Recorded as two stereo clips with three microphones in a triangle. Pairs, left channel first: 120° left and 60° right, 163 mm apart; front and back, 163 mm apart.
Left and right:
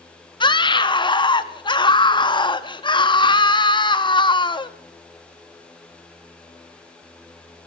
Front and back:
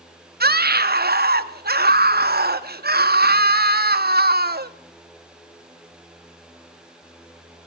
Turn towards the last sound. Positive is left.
turn(degrees=180)